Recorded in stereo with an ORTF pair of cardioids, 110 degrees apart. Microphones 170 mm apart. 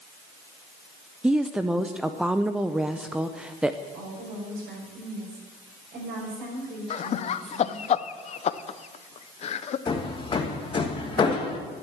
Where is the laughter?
40° left, 0.7 m.